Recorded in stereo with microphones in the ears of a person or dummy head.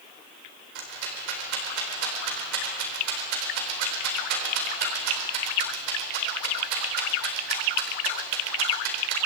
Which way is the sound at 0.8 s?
65° right (ahead or behind).